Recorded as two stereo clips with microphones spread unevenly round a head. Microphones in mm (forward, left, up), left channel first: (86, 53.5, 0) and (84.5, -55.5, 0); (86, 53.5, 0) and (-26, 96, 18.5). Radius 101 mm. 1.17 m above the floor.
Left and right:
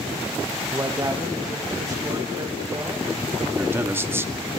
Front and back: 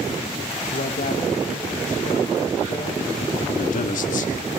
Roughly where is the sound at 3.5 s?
Ahead.